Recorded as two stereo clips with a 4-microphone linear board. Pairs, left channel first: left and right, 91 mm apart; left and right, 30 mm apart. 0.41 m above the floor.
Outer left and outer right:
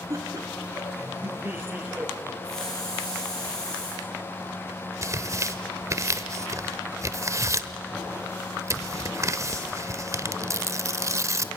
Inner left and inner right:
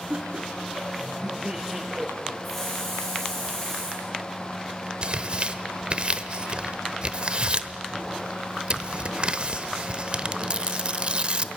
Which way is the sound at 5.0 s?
35° right (ahead or behind).